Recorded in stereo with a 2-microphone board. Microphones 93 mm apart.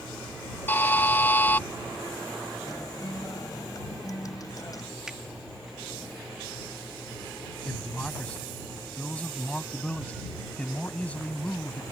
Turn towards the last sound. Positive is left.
turn(degrees=15)  # may be behind; listen again after turning